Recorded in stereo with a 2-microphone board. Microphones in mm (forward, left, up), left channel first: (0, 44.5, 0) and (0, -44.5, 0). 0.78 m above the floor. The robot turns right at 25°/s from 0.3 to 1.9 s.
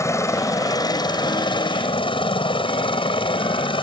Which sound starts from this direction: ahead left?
A helicopter, at 0.0 s.